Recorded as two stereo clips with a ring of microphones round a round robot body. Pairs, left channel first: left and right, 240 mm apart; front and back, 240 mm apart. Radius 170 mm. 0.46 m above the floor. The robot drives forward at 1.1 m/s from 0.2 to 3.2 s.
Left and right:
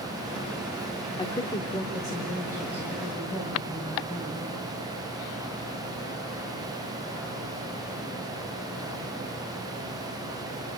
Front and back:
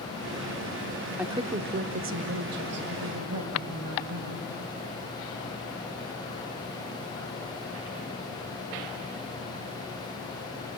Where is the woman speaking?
110° left, 0.9 m; by 4.5 s 175° left, 2.5 m.